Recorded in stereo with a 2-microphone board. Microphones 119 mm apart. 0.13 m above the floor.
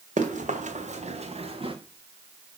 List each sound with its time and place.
0.2 s running footsteps: 90° right, 1.5 m; by 1.8 s 45° right (ahead or behind), 1.2 m